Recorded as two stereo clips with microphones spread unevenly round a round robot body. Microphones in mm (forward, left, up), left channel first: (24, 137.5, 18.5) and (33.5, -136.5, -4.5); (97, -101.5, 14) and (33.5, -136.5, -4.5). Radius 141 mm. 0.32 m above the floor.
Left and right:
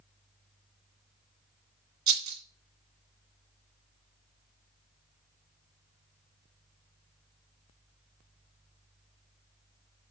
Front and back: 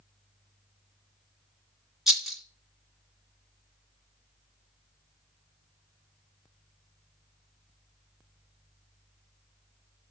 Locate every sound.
2.1 s a rattle: 70° right, 2.0 m